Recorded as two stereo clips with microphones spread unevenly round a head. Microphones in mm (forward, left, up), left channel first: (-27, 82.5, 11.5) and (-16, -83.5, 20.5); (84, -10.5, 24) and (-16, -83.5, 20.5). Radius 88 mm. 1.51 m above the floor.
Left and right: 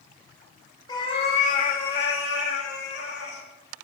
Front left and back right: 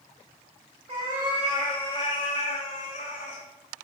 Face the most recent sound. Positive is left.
turn(degrees=65)